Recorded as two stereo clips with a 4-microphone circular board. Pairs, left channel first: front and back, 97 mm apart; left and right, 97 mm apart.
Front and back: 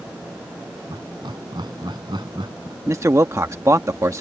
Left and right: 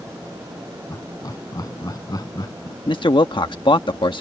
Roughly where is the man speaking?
Behind left.